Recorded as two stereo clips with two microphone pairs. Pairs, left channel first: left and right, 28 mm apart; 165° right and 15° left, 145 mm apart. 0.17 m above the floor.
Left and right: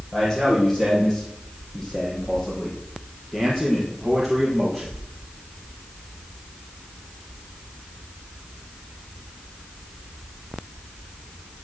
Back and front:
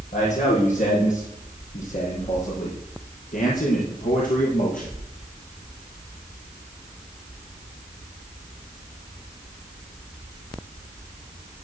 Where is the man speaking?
165° left, 7 m; by 5.0 s straight behind, 4.5 m.